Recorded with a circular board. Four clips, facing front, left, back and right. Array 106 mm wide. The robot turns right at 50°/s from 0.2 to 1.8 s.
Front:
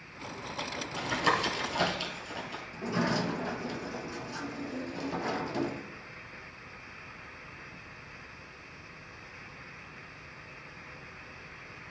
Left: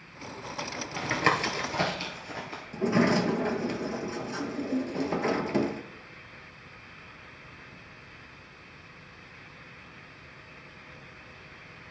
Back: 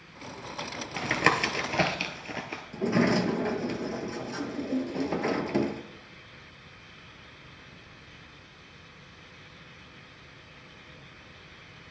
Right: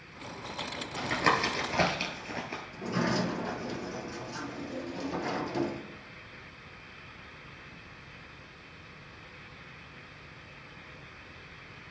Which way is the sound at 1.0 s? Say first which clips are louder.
Left 1 dB, back 3 dB; 160° left.